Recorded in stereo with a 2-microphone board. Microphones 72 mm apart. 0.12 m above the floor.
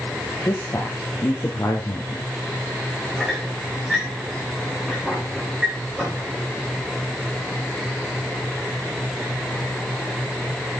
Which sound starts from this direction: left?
A man speaking, at 0.5 s.